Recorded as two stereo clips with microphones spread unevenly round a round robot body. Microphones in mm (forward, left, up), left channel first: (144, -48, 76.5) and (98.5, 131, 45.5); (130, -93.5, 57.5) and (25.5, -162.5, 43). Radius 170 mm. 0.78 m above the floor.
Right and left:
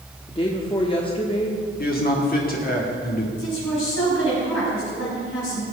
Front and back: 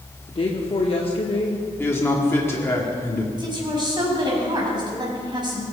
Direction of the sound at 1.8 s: 40° right.